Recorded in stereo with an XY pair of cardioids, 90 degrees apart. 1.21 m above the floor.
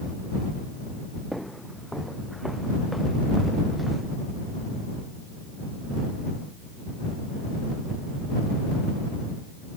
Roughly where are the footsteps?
Ahead.